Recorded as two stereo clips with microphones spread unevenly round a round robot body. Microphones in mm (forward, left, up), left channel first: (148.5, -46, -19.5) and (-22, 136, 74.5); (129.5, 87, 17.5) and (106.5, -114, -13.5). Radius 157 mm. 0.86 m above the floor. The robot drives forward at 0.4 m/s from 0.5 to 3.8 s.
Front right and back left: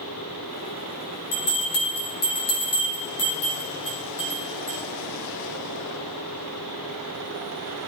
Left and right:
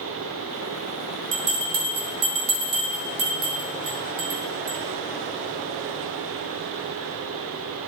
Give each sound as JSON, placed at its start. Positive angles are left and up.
{"t": 1.3, "sound": "a bell", "azimuth_deg": -85, "distance_m": 2.5}